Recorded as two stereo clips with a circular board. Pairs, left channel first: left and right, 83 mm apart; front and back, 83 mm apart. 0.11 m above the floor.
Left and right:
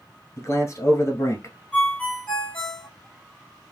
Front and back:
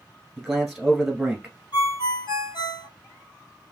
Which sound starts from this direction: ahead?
A ringtone, at 1.7 s.